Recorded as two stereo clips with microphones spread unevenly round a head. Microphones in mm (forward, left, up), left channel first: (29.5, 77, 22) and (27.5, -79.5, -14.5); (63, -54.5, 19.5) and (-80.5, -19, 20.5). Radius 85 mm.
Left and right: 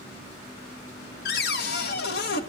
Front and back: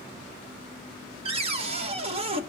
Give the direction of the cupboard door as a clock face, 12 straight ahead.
8 o'clock.